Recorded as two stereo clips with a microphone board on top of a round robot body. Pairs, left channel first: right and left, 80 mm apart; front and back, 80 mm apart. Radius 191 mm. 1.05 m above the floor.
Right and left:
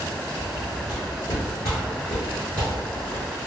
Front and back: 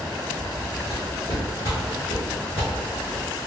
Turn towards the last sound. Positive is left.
turn(degrees=25)